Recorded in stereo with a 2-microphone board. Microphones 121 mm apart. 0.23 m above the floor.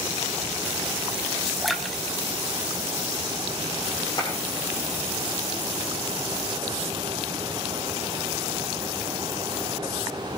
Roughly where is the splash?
Centre.